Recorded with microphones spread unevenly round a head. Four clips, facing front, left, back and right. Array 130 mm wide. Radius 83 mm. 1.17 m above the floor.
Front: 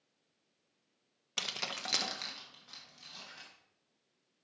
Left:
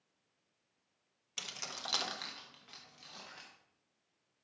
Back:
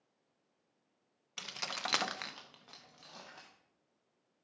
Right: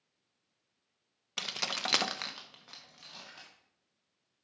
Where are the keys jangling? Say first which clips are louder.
Right 8 dB, even; 40° right, 0.8 m; by 3.5 s 170° right, 2 m.